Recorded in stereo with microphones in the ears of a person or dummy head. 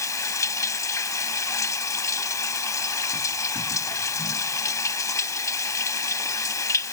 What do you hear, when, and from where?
0.0 s running water: 10° left (ahead or behind)